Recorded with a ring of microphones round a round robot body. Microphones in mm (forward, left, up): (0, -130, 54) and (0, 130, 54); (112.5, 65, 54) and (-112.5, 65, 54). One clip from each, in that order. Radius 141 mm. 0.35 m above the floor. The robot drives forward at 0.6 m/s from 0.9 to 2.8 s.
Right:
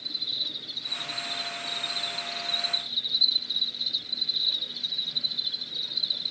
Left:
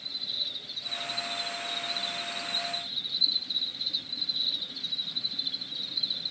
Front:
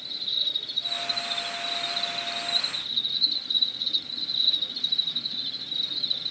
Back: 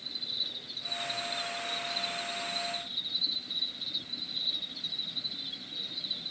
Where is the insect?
30° right, 2.5 m; by 6.3 s 55° right, 1.7 m.